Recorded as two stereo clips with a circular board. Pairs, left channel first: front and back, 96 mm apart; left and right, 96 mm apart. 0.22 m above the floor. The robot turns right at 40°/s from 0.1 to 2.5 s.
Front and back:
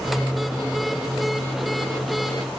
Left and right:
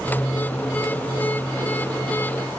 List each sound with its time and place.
Only background noise.